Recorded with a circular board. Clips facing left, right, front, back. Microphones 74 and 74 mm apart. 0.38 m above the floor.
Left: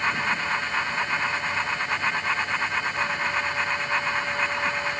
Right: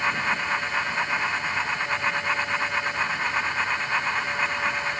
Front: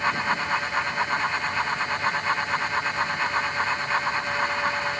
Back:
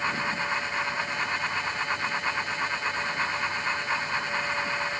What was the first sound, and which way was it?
Only background noise.